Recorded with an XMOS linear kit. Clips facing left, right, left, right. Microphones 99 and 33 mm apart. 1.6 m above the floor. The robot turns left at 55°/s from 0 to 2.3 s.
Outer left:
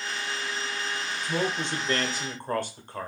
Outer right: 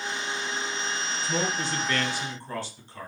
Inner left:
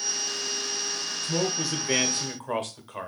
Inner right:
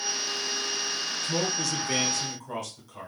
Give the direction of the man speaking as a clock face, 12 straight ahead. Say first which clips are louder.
Outer left 1 dB, inner left 2 dB; 6 o'clock.